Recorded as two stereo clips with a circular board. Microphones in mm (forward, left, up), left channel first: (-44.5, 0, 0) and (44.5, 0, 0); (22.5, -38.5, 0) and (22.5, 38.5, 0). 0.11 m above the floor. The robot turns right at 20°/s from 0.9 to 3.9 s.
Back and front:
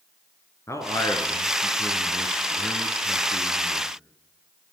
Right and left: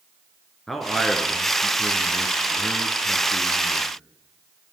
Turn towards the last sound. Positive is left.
turn(degrees=-115)